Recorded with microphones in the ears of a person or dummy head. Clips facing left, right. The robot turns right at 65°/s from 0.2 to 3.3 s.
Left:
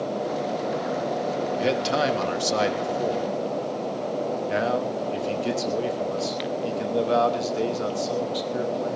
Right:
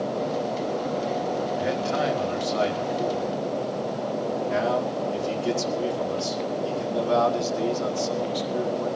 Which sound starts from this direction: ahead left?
A man speaking, at 1.6 s.